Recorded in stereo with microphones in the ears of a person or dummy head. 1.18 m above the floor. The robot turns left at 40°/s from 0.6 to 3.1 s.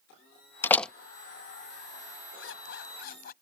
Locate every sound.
0.6 s a door slam: 15° left (ahead or behind); by 0.9 s centre (ahead or behind)
2.4 s a zipper: 85° left; by 3.3 s 55° left (ahead or behind)